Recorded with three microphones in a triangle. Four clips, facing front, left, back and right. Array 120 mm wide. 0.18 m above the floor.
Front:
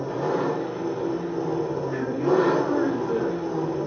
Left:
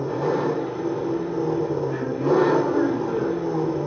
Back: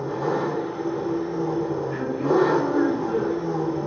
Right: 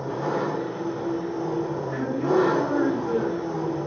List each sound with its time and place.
0.0 s an engine running: 65° left, 1.3 m
1.9 s a woman speaking: 25° right, 1.8 m